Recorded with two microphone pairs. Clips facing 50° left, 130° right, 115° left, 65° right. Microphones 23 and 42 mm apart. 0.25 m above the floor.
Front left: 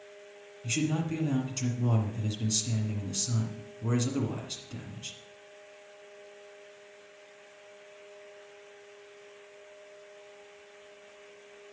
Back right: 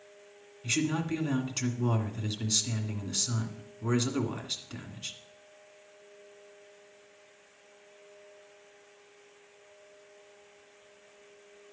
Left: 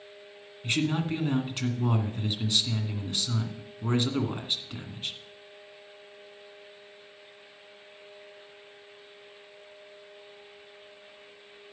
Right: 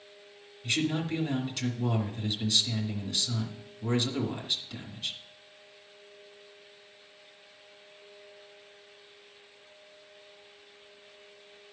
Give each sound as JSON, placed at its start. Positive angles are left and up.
{"t": 0.6, "sound": "a man speaking", "azimuth_deg": 175, "distance_m": 1.9}